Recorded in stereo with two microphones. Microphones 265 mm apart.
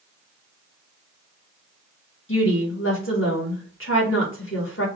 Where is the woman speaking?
55° left (ahead or behind), 1.8 m.